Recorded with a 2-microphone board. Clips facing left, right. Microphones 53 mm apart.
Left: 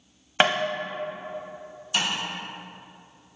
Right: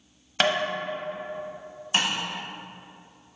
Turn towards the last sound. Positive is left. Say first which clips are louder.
# right 1 dB
turn(degrees=-35)  # may be behind; listen again after turning